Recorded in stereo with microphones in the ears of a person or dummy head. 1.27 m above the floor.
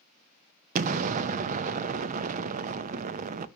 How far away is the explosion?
About 0.6 m.